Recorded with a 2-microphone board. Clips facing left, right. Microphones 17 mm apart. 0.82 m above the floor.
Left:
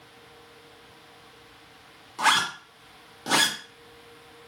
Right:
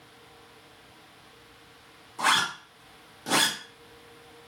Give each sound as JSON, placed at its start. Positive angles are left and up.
{"t": 2.2, "sound": "a zipper", "side_deg": 40, "distance_m": 0.9}